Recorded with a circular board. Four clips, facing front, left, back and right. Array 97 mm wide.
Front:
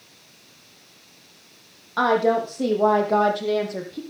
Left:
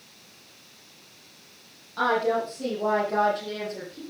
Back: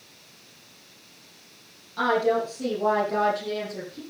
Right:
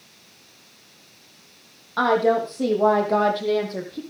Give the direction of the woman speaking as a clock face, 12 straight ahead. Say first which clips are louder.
Right 5 dB, front 3 dB; 1 o'clock.